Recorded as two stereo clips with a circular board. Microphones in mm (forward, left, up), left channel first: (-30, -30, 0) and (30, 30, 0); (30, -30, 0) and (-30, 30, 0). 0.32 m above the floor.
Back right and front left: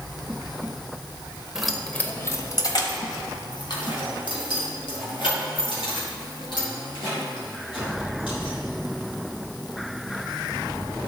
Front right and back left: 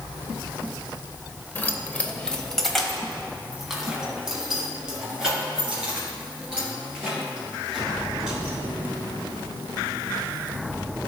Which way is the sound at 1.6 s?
30° right.